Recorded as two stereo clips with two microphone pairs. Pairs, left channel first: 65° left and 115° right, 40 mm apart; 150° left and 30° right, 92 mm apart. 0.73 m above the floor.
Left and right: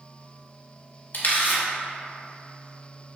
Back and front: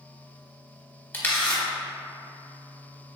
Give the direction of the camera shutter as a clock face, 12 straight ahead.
9 o'clock.